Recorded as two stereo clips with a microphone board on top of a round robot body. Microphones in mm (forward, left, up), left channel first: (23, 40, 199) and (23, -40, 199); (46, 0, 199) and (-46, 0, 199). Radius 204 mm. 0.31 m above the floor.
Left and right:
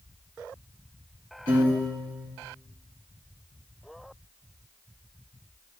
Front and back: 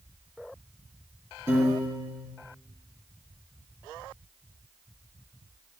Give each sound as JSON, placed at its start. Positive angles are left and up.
{"t": 1.5, "sound": "a piano", "azimuth_deg": -120, "distance_m": 3.0}